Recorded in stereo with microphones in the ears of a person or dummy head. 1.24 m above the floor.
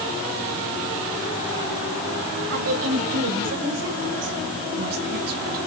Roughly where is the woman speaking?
Right.